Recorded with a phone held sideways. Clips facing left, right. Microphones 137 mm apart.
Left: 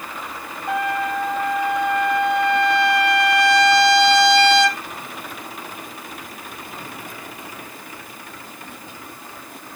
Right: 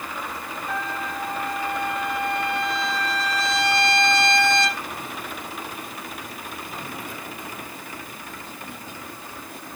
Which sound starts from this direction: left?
A trumpet, at 0.7 s.